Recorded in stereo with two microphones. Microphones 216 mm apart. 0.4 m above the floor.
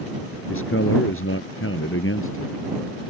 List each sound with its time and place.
0.5 s a man speaking: 75° left (ahead or behind)